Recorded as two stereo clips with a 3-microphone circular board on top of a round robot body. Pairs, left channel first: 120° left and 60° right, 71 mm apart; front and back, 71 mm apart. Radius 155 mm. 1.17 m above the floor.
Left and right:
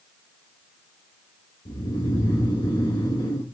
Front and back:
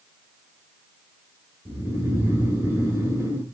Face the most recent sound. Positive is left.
turn(degrees=120)